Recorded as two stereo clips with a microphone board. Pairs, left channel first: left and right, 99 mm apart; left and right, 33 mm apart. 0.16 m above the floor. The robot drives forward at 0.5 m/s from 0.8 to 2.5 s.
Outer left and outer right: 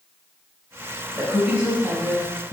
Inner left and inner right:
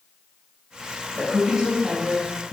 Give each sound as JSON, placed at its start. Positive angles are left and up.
{"t": 1.1, "sound": "a woman speaking", "side_deg": -15, "distance_m": 1.5}